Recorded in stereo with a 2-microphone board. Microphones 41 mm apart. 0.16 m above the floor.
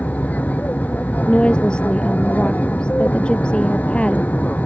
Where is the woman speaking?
25° left (ahead or behind).